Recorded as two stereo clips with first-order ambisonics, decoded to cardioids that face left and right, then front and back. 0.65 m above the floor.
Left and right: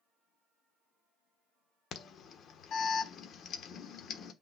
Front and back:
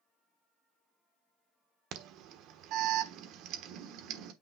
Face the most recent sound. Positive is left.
turn(degrees=145)